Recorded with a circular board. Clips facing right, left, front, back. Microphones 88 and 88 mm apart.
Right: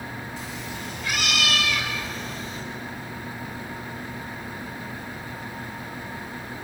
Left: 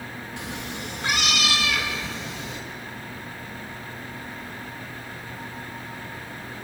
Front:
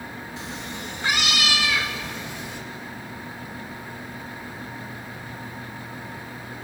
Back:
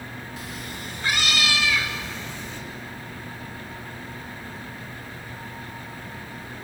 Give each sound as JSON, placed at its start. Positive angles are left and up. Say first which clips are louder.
{"t": 0.4, "sound": "a cat meowing", "louder": "left 1 dB, front 3 dB", "azimuth_deg": 65, "distance_m": 2.5}